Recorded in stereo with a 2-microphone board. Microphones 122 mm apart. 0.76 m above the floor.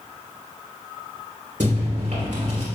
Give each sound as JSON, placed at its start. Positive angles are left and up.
{"t": 1.6, "sound": "chewing", "side_deg": -75, "distance_m": 3.0}